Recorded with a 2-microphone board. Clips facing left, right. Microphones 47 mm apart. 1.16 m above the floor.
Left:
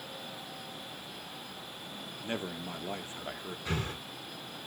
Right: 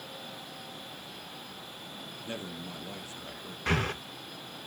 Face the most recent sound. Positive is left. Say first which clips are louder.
# right 7 dB
turn(degrees=-70)  # may be behind; listen again after turning